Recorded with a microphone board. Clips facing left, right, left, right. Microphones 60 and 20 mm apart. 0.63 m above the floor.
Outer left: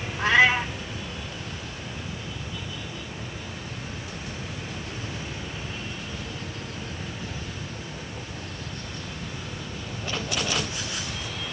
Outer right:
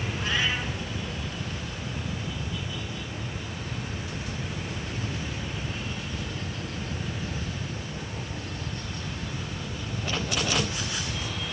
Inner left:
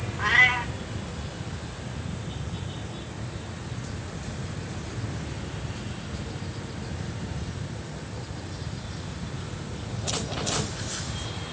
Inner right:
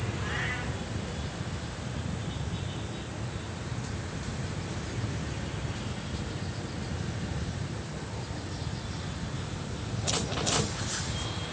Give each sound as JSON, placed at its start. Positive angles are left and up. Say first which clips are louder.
{"t": 0.2, "sound": "a cat meowing", "louder": "outer left 10 dB, inner left 16 dB", "side_deg": 75, "distance_m": 1.7}